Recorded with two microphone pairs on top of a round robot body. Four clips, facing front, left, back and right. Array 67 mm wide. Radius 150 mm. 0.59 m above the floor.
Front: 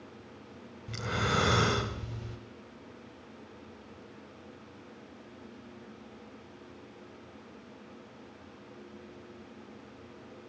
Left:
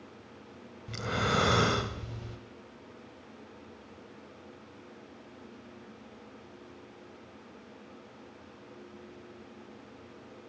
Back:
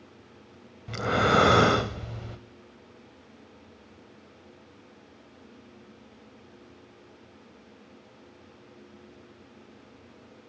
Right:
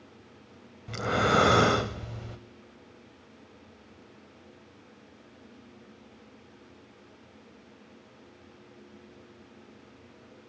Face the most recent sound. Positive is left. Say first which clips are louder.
# right 6 dB, back 8 dB
turn(degrees=-135)